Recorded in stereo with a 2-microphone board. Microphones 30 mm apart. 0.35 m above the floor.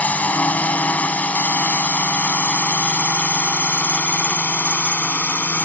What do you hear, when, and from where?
0.0 s a drone: 60° left (ahead or behind); by 5.7 s 65° left (ahead or behind)